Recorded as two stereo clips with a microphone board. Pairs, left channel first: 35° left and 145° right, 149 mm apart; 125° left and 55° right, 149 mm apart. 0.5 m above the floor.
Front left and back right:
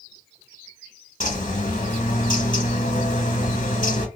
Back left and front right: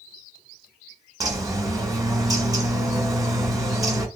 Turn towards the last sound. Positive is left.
turn(degrees=10)